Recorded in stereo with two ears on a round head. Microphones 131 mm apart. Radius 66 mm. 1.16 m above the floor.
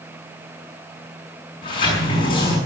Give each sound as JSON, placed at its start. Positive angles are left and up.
{"t": 1.6, "sound": "a sliding door", "side_deg": 35, "distance_m": 6.0}